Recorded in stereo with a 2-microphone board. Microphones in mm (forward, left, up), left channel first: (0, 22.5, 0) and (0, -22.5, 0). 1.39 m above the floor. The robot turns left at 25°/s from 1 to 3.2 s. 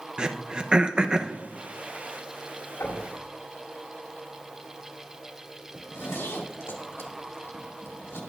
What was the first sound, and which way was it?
Throat clearing, 20° right (ahead or behind).